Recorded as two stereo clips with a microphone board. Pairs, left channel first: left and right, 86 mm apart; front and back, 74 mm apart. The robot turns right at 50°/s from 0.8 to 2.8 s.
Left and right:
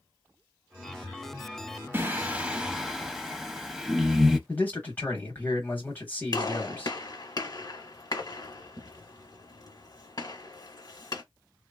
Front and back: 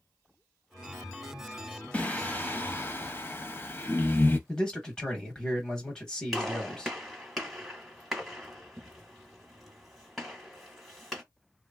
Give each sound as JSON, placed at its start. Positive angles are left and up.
{"t": 1.9, "sound": "singing", "azimuth_deg": -50, "distance_m": 0.5}
{"t": 4.5, "sound": "a man speaking", "azimuth_deg": 65, "distance_m": 1.0}
{"t": 6.3, "sound": "a gunshot", "azimuth_deg": 90, "distance_m": 1.1}